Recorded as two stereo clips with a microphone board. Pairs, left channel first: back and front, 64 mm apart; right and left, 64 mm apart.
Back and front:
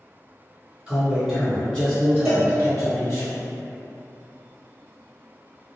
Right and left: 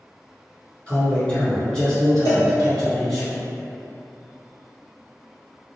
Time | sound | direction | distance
0.9 | a man speaking | 45° right | 1.4 m
2.2 | a cowbell | 75° right | 1.2 m